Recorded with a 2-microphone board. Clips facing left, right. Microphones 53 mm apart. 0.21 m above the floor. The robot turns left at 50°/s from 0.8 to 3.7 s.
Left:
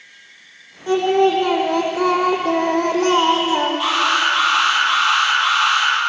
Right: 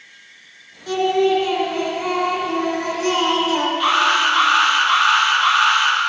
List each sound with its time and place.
0.9 s singing: 155° left, 5.5 m; by 3.7 s 15° left, 5.5 m
3.8 s an alarm: 5° left (ahead or behind), 8.5 m